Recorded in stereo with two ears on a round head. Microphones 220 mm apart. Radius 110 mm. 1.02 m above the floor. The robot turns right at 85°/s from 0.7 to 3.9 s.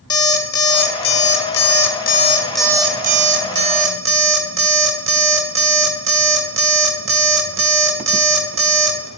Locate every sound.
0.1 s an alarm clock: 20° left, 1.0 m; by 9.1 s 70° right, 1.0 m